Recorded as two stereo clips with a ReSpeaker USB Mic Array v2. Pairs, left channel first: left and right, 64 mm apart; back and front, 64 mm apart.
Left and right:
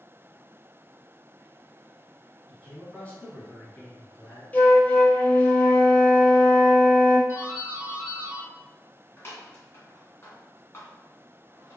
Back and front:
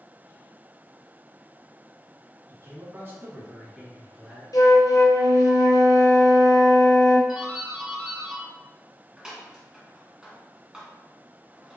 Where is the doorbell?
75° left, 1.8 m.